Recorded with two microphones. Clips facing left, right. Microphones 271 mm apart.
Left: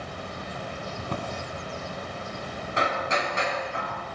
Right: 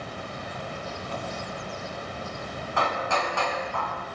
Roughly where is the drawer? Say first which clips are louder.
Left 4 dB; left.